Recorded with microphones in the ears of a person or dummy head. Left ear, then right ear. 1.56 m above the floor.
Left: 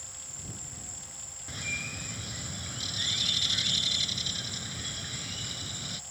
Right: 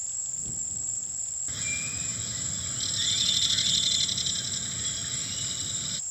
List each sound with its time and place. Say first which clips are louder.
0.0 s an insect: right 7 dB; 5° left (ahead or behind)
1.5 s a bird: even; centre (ahead or behind)